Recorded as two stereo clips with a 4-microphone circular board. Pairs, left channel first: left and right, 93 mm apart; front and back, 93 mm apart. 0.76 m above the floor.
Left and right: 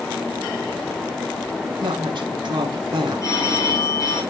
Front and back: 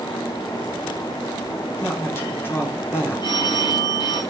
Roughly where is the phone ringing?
Ahead left.